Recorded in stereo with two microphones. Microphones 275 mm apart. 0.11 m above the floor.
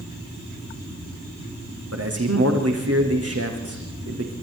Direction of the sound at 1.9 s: 60° right (ahead or behind).